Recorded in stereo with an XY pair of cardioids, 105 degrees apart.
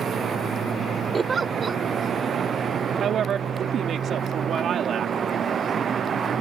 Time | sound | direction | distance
1.1 | a giggle | 35° right | ?
3.0 | a woman speaking | 60° right | ?